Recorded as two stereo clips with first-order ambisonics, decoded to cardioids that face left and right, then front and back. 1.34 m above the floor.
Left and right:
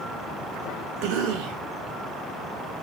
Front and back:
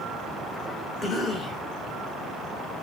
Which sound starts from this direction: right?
A cough, at 1.0 s.